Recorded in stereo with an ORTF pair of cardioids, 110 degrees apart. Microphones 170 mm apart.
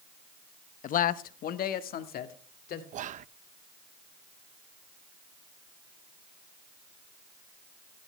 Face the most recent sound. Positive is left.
turn(degrees=-50)